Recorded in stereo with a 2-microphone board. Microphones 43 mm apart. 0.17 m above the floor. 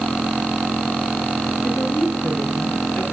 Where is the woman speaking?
80° left, 6 m; by 3.0 s 70° left (ahead or behind), 4.5 m.